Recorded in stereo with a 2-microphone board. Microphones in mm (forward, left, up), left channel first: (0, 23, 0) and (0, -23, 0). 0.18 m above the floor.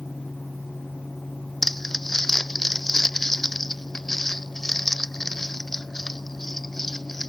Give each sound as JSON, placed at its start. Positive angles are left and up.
{"t": 1.6, "sound": "crumpling", "side_deg": 5}